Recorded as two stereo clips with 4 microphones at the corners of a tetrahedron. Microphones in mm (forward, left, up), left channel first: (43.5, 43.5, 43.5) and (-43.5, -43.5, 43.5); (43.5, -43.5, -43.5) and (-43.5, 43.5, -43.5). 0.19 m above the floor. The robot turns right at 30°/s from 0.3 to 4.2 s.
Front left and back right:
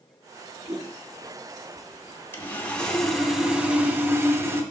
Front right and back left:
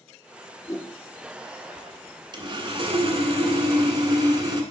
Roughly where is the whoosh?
Right.